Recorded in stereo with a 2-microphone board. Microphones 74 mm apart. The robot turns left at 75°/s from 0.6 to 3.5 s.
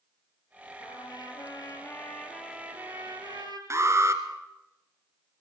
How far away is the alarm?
About 2 m.